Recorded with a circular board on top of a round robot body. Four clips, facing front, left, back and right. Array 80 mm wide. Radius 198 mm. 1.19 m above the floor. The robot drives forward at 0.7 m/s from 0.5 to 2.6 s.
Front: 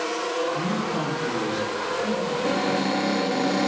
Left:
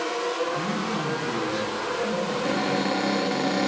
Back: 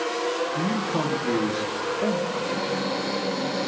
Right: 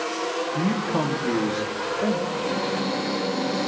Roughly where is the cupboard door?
Ahead left.